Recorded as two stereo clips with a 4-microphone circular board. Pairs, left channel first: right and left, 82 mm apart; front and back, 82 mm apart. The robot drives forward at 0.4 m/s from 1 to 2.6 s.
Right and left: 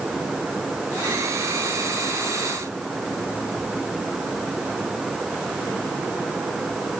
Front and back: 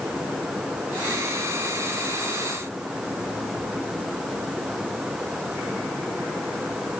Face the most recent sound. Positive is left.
No sound to turn to.